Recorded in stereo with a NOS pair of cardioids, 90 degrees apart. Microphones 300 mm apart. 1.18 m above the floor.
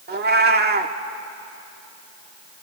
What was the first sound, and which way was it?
A cat meowing, 35° right.